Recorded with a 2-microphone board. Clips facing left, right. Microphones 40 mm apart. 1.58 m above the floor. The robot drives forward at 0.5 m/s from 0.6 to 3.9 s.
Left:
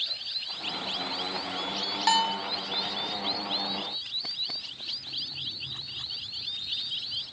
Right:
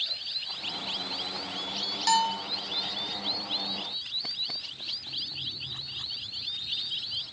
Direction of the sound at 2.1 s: 30° left (ahead or behind).